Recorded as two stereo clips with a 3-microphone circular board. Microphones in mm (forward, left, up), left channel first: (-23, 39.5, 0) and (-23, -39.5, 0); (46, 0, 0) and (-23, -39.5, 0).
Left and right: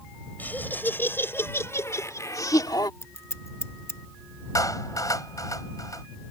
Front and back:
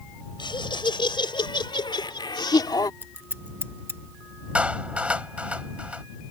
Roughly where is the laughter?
Ahead left.